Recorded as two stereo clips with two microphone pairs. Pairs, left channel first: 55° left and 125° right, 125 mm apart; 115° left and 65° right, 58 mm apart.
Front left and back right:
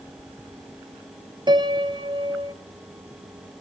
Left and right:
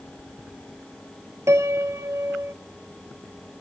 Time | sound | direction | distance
1.5 | a piano | 80° right | 1.1 m